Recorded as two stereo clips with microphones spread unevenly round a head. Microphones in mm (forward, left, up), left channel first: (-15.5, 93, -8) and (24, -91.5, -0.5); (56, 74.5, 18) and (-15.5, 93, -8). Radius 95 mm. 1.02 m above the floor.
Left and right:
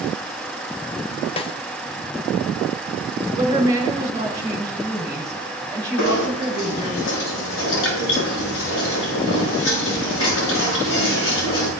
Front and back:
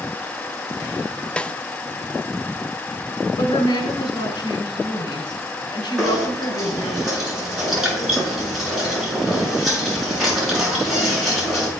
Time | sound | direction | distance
1.4 | a snare drum | 85° left | 0.6 m
3.4 | a woman speaking | 5° right | 4.5 m
6.0 | knocking | 80° left | 7.5 m